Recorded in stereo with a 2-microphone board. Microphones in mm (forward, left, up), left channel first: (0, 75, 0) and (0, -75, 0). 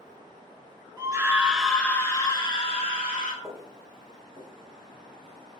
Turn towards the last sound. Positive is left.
turn(degrees=-40)  # may be behind; listen again after turning